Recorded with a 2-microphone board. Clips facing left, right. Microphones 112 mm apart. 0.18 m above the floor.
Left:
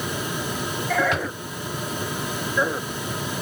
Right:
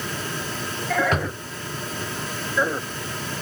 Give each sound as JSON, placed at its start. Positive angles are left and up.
{"t": 1.1, "sound": "a drawer", "side_deg": -40, "distance_m": 0.7}